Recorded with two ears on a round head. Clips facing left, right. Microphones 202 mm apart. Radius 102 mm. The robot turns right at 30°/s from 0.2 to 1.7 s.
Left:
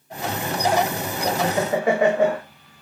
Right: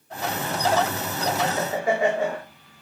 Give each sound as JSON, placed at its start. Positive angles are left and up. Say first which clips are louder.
{"t": 1.2, "sound": "laughter", "louder": "left 4 dB", "side_deg": 65, "distance_m": 1.1}